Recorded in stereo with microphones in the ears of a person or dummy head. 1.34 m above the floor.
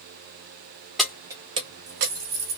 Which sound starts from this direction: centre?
Keys jangling, at 1.0 s.